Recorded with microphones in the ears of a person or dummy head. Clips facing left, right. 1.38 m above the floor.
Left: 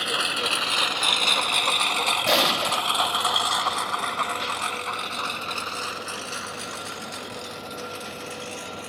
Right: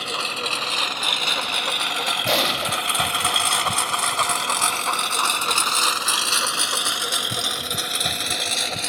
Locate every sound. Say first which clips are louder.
0.0 s a lawn mower: even; 10° left (ahead or behind); by 8.9 s 75° right (ahead or behind)
2.3 s an explosion: even; 5° left (ahead or behind)